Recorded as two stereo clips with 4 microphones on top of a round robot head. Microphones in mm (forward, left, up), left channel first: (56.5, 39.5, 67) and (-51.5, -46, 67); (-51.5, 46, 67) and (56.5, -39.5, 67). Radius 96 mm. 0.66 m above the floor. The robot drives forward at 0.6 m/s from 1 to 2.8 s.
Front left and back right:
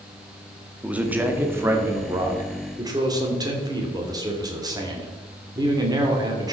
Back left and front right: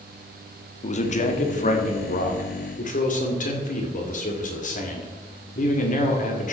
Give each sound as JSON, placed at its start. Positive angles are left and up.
{"t": 0.8, "sound": "a man speaking", "azimuth_deg": 140, "distance_m": 1.6}